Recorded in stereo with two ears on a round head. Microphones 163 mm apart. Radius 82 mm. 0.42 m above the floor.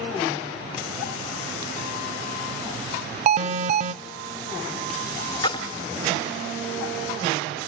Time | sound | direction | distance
3.3 | an alarm | 40° right (ahead or behind) | 0.6 m
5.4 | a splash | 25° left (ahead or behind) | 1.1 m